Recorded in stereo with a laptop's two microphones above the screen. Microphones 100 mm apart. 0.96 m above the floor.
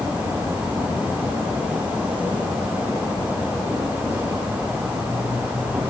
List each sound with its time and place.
0.0 s an insect: 15° right (ahead or behind), 4 m